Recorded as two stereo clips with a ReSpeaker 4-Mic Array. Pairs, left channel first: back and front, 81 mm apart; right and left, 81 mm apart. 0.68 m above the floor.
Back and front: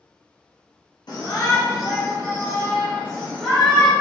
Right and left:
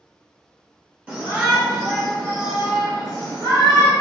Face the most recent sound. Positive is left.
turn(degrees=100)